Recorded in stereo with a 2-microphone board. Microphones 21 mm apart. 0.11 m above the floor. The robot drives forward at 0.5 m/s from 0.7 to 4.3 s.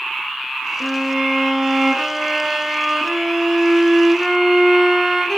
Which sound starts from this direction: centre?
A violin, at 0.8 s.